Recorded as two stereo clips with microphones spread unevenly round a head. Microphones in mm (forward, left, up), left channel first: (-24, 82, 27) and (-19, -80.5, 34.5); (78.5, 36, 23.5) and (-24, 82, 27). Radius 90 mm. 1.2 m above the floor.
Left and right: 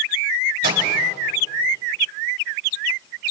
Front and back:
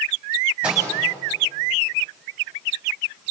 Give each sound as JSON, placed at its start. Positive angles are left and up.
{"t": 0.6, "sound": "a microwave", "azimuth_deg": -120, "distance_m": 5.0}